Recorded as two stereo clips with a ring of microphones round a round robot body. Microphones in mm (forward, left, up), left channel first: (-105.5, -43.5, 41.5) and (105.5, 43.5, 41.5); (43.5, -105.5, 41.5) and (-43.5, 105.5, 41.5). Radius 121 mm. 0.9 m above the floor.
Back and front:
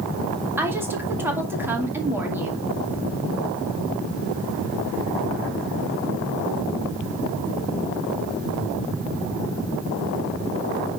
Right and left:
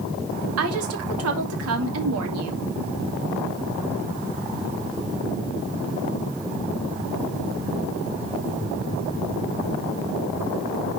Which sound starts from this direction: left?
A woman speaking, at 0.6 s.